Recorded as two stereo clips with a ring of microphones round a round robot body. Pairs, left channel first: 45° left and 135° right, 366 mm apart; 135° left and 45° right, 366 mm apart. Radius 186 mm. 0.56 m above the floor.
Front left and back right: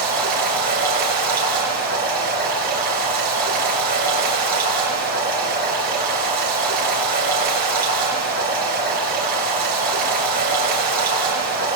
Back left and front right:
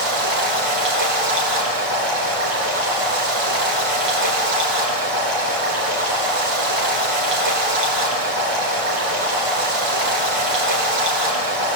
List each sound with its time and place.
0.0 s running water: 65° right, 7 m